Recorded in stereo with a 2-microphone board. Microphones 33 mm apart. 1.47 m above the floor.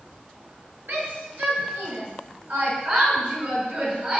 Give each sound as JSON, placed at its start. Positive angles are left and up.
{"t": 0.9, "sound": "a shout", "side_deg": -75, "distance_m": 7.5}